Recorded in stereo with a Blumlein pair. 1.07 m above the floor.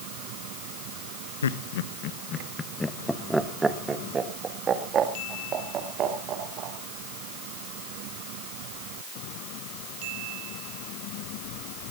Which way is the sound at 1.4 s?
65° left.